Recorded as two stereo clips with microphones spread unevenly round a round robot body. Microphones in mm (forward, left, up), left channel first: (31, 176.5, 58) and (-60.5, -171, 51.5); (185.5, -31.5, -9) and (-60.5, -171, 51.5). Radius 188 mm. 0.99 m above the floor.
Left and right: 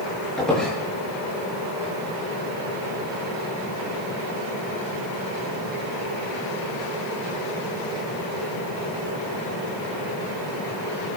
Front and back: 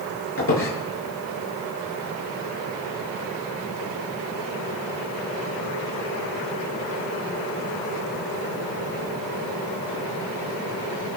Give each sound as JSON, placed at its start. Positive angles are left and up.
{"t": 0.4, "sound": "a squeak", "azimuth_deg": -15, "distance_m": 8.5}